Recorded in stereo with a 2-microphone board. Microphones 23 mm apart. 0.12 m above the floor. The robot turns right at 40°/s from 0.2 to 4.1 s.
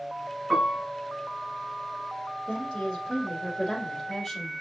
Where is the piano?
10° left (ahead or behind), 3.5 m; by 0.8 s 25° left (ahead or behind), 3.5 m.